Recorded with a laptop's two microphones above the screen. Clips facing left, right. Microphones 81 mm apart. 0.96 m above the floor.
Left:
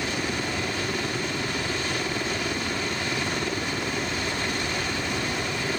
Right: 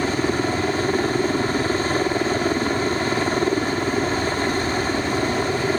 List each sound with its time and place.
0.0 s a helicopter: 35° right (ahead or behind)